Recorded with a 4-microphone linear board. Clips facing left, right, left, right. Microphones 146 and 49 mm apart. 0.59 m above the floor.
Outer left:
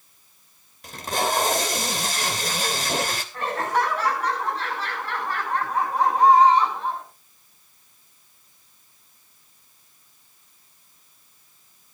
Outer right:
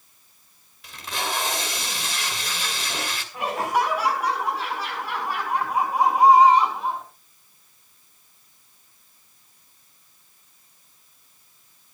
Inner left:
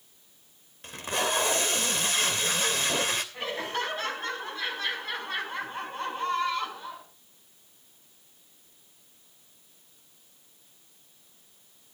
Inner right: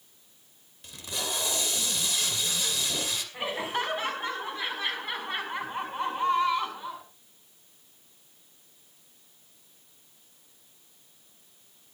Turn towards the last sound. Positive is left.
turn(degrees=-10)  # may be behind; listen again after turning